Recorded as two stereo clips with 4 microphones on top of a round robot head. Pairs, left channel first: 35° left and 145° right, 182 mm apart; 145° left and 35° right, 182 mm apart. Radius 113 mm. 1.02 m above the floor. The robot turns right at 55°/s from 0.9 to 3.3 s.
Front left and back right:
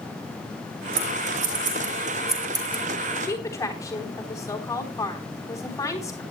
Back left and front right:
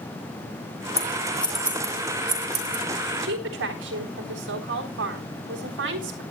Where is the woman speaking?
45° right, 3.5 m; by 6.2 s 35° right, 3.5 m.